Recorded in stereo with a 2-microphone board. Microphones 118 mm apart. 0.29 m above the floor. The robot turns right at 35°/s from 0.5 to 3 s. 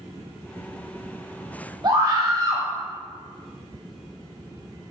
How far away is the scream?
About 1.1 m.